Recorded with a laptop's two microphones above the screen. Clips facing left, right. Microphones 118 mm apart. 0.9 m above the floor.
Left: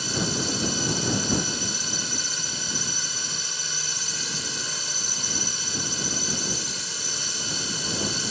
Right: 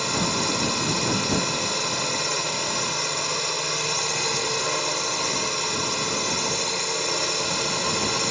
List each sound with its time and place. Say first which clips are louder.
0.0 s a drone: right 3 dB; 65° right (ahead or behind)